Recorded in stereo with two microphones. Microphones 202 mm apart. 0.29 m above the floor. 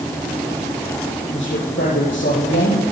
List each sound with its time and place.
1.3 s a man speaking: 75° left (ahead or behind), 8.5 m